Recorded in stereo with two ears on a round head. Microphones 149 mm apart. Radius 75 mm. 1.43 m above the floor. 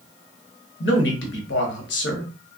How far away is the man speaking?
About 1.0 m.